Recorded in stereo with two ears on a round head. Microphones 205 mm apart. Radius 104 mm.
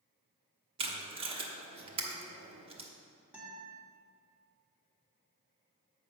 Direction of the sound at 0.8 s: 25° right (ahead or behind).